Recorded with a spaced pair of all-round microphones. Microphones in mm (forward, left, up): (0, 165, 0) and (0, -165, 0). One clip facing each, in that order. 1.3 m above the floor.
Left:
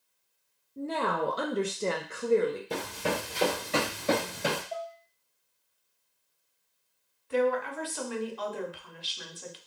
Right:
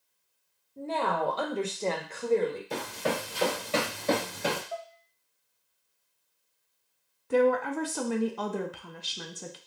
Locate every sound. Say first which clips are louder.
0.8 s a woman speaking: left 1 dB; 20° left (ahead or behind), 0.5 m; by 2.6 s 15° left (ahead or behind), 0.8 m
2.7 s running footsteps: even; 45° left (ahead or behind), 1.7 m; by 4.6 s 5° right (ahead or behind), 1.3 m
4.7 s dishes clattering: left 2 dB; 10° right (ahead or behind), 0.5 m
7.3 s a woman speaking: right 3 dB; 60° right (ahead or behind), 0.5 m